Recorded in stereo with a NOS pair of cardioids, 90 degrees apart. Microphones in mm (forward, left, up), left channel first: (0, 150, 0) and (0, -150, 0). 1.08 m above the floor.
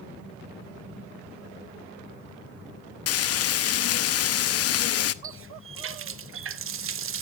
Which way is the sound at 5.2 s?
45° right.